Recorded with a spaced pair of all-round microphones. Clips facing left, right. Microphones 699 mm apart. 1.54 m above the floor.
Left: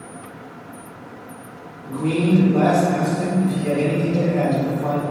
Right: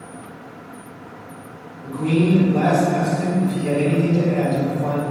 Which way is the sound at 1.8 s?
35° right (ahead or behind).